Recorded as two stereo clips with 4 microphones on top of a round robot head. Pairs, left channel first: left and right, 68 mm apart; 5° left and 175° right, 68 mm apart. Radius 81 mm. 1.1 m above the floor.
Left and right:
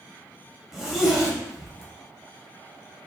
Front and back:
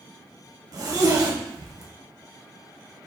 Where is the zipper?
175° right, 1.1 m.